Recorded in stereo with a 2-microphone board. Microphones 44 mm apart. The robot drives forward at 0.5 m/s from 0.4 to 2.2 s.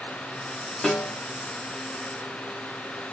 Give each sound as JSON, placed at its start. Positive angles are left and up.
{"t": 0.8, "sound": "a snare drum", "side_deg": 20, "distance_m": 1.0}